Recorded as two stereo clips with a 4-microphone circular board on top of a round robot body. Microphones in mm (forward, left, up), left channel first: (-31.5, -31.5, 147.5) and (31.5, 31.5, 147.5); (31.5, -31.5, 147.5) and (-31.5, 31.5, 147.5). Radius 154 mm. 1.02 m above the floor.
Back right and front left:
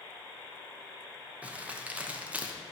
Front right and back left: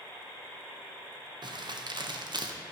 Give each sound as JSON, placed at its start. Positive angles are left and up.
{"t": 1.4, "sound": "crumpling", "azimuth_deg": 120, "distance_m": 1.4}